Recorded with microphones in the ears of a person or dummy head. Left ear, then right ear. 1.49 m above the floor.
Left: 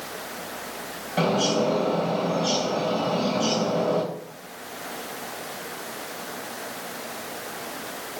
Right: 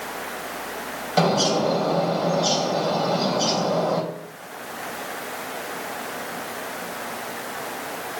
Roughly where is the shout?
I don't hear a shout.